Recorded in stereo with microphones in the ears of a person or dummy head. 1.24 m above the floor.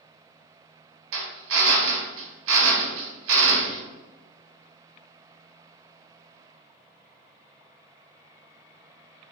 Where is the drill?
65° right (ahead or behind), 1.0 m.